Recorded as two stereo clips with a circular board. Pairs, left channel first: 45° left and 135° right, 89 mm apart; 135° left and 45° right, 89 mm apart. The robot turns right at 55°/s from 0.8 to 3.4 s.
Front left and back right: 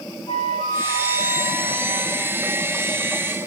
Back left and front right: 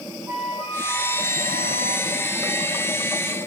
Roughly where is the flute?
Ahead left.